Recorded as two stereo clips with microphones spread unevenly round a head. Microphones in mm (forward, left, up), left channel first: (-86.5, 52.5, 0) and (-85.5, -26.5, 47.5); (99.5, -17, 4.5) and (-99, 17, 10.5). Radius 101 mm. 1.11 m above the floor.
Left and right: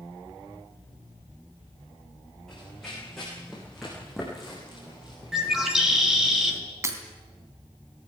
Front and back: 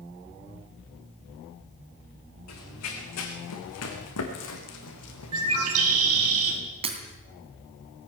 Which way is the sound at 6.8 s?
130° right.